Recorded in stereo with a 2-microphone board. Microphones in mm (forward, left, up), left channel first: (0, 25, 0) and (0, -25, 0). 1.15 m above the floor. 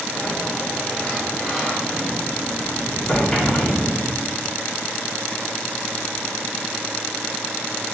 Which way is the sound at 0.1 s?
5° left (ahead or behind).